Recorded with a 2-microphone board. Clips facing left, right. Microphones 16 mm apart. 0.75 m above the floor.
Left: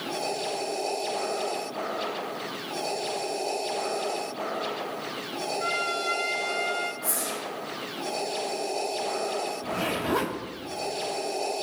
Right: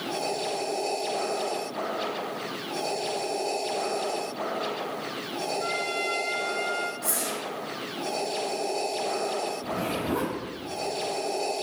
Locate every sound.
5.6 s a trumpet: 20° left (ahead or behind), 0.9 m
7.0 s a whoosh: 60° right (ahead or behind), 2.5 m
9.6 s a zipper: 75° left (ahead or behind), 0.9 m